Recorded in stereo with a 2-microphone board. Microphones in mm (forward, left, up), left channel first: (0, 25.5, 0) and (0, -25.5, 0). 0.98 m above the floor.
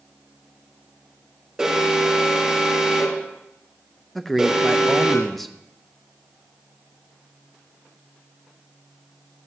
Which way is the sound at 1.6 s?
10° right (ahead or behind).